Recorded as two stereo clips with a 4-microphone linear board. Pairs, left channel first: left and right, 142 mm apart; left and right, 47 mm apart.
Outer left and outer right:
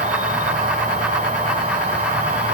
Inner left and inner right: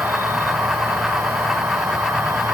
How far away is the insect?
About 2.5 m.